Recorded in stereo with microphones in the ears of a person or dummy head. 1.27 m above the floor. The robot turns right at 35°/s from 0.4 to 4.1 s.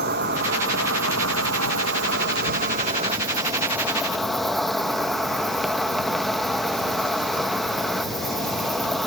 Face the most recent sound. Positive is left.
turn(degrees=0)